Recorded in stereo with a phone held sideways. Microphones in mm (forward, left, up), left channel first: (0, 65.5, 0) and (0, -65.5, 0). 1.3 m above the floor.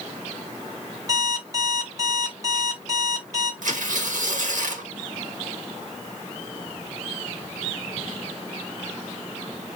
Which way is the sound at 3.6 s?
80° right.